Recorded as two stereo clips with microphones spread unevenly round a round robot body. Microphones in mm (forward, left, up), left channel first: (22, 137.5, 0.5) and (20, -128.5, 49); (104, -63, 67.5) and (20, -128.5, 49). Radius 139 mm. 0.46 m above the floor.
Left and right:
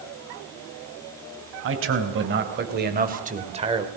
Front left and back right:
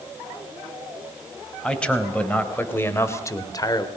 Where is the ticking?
I don't hear ticking.